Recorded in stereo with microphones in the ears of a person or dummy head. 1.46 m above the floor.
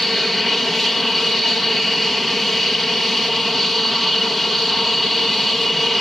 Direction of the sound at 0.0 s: Centre (ahead or behind).